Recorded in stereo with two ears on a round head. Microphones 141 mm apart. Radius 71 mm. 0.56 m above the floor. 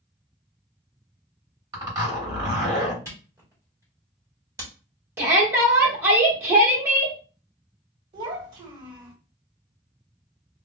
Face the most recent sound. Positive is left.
turn(degrees=-35)  # may be behind; listen again after turning